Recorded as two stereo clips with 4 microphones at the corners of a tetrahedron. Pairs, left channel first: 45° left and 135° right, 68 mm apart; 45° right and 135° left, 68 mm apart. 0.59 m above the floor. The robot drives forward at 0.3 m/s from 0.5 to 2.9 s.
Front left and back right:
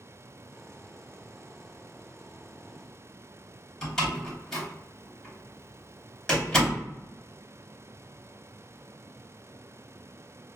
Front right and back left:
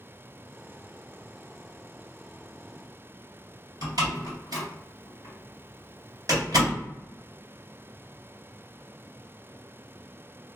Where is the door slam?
130° left, 1.7 m.